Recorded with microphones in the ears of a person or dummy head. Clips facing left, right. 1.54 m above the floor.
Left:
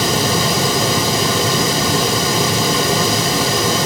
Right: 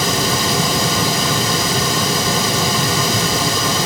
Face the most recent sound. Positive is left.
No sound to turn to.